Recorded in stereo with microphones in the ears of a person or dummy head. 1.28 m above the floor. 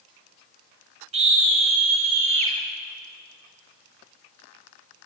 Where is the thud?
I don't hear a thud.